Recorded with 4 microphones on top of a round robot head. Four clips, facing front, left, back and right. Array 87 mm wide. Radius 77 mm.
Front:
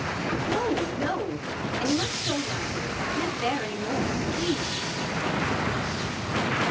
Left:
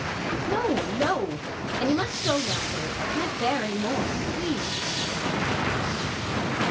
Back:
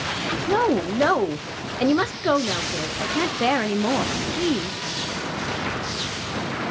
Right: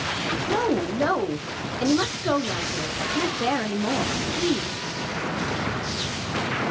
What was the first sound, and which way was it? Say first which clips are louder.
A woman speaking: right 2 dB, back 8 dB; 170° right.